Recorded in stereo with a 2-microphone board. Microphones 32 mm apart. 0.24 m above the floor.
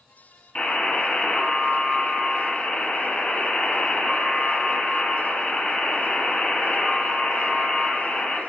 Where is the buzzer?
35° left (ahead or behind), 1.6 m.